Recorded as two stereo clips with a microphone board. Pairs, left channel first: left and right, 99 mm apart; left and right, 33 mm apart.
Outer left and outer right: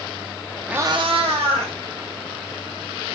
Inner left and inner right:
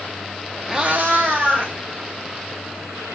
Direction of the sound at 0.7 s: 10° right (ahead or behind).